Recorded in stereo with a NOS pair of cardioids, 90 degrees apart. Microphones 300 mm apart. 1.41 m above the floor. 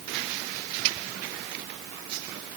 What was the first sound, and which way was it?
Only background noise.